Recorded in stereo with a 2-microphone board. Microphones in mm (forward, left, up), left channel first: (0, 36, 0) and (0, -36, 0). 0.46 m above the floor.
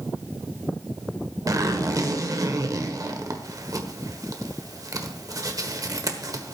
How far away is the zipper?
About 1.3 m.